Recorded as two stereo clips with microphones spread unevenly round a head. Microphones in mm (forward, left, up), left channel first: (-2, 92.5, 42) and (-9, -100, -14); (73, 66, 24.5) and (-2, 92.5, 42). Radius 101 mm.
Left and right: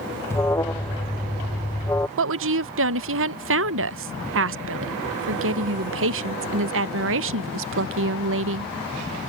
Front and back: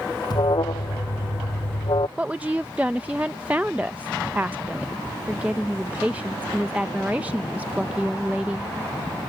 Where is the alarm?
20° left.